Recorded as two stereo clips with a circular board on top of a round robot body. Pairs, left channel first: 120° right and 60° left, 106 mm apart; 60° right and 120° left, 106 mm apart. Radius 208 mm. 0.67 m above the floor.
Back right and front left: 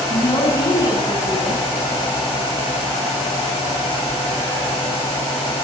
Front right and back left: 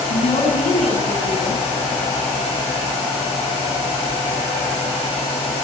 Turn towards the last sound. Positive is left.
turn(degrees=-65)